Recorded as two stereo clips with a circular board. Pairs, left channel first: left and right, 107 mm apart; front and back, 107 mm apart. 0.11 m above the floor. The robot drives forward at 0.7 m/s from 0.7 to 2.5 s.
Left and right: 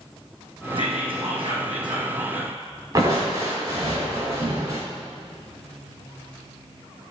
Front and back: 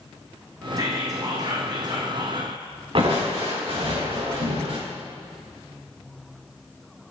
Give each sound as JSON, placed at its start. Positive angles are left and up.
{"t": 0.8, "sound": "whispering", "azimuth_deg": -125, "distance_m": 5.0}
{"t": 3.0, "sound": "crushing", "azimuth_deg": -140, "distance_m": 4.0}